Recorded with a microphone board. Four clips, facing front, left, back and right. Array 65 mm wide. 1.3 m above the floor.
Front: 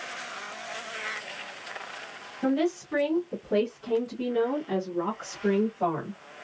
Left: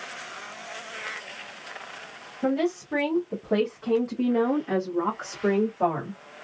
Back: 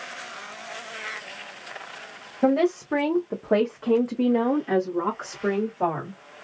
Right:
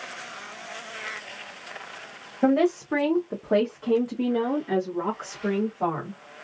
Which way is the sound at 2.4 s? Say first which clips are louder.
Right 4 dB, back 5 dB; 130° right.